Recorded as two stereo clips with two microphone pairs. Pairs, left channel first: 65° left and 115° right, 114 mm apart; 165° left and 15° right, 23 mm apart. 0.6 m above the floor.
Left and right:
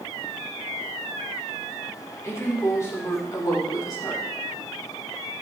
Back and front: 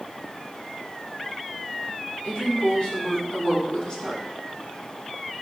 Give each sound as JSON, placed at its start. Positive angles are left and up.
{"t": 2.2, "sound": "a woman speaking", "azimuth_deg": 130, "distance_m": 4.0}